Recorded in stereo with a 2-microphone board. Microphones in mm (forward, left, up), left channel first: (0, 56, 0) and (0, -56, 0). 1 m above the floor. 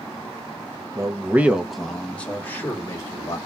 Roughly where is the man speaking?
Right.